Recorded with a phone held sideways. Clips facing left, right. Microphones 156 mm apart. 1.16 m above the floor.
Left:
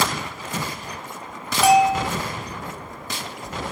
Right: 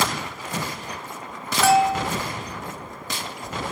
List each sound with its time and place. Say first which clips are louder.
1.6 s a bell: left 2 dB; 15° left (ahead or behind)